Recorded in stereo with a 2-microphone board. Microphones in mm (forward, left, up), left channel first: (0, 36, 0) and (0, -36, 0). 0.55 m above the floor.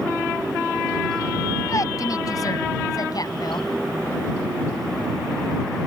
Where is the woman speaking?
50° left (ahead or behind); by 3.6 s 70° left (ahead or behind).